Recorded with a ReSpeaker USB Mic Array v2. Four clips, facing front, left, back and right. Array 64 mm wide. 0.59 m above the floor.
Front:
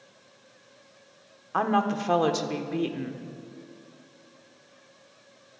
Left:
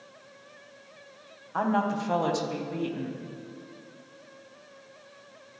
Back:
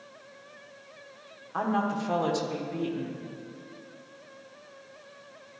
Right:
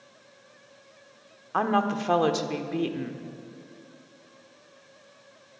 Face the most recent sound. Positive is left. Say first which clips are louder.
# right 2 dB, front 3 dB
turn(degrees=-55)